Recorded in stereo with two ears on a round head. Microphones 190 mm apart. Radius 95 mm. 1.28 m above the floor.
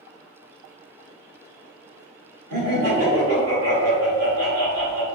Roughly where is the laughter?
Right.